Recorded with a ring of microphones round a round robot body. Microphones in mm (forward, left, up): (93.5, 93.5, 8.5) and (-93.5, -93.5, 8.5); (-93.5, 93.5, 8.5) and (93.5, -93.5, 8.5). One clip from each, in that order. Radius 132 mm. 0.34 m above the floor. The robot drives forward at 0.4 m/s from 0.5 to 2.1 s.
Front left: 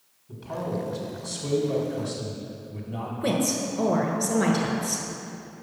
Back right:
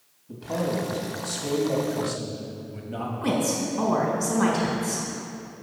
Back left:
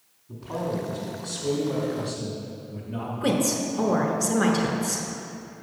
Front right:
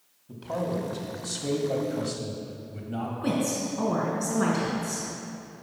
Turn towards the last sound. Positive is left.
turn(degrees=130)